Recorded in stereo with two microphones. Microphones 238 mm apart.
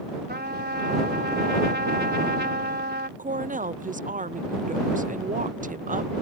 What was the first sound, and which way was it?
A trumpet, 45° right (ahead or behind).